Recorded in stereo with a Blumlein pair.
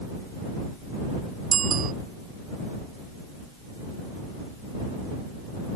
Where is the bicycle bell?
25° right.